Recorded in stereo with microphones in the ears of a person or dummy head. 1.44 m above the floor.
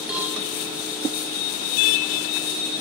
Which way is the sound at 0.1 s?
5° right (ahead or behind).